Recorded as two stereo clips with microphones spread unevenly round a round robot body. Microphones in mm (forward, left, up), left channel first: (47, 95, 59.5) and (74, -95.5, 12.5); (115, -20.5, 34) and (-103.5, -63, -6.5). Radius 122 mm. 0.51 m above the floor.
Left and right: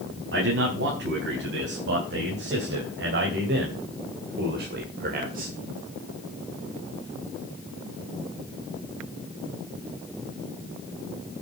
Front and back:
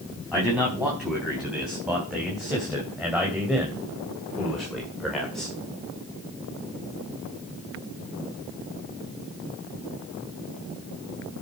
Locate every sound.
0.3 s a man speaking: 85° right, 4.5 m